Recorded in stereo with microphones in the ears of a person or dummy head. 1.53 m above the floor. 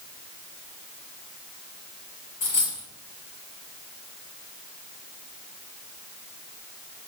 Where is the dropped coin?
15° left (ahead or behind), 1.6 m.